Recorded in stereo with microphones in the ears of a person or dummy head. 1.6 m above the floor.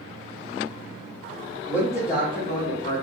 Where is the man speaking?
15° left (ahead or behind), 1.5 m; by 3.0 s 40° left (ahead or behind), 0.9 m.